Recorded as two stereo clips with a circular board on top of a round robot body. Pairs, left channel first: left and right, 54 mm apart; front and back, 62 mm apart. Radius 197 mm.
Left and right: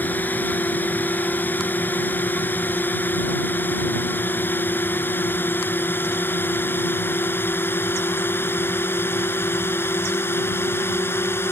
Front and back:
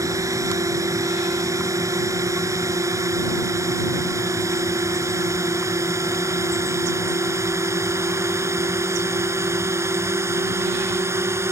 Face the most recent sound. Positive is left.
turn(degrees=135)